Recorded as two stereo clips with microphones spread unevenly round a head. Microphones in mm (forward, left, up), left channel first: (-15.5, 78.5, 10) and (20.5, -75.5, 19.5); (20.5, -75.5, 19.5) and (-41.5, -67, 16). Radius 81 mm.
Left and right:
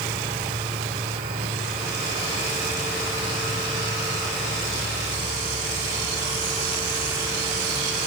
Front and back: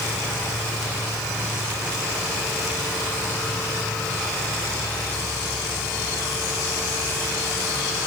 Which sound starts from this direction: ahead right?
An insect, at 0.0 s.